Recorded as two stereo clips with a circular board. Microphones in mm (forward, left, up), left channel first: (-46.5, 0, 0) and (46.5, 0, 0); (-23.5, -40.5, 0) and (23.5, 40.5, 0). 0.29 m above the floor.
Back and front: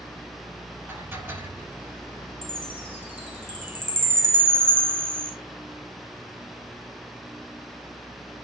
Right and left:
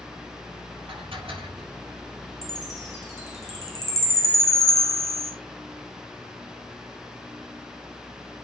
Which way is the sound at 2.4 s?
70° right.